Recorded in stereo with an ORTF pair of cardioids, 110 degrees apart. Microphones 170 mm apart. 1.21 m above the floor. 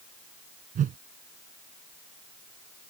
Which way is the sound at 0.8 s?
55° right.